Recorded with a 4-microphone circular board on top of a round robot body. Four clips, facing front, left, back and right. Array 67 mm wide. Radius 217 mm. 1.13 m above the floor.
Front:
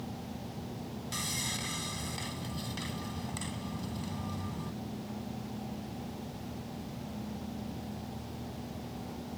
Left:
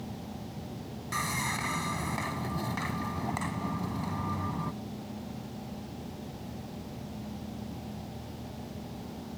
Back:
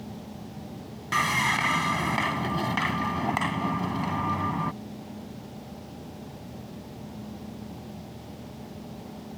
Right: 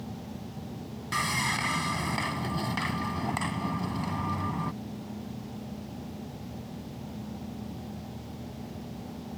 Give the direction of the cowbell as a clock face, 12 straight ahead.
No cowbell in this recording.